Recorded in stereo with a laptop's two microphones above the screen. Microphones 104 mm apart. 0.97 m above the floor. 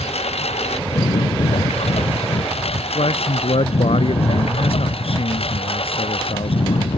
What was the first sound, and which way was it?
A lawn mower, 80° left.